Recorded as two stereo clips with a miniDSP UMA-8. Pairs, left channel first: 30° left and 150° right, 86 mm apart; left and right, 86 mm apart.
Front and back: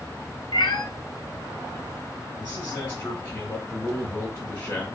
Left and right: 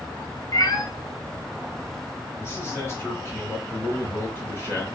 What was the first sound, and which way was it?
A cat meowing, 50° left.